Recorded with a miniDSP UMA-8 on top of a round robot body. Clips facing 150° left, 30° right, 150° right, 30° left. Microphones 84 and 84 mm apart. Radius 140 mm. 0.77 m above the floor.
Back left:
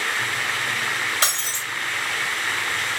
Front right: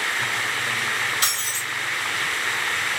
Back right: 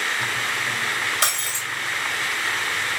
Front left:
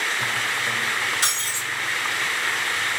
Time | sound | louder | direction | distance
1.2 | breaking glass | back left 2 dB, back right 2 dB | 155° right | 1.6 m